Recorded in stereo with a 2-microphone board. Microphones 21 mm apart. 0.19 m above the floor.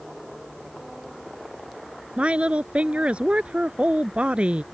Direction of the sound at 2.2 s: 65° right (ahead or behind).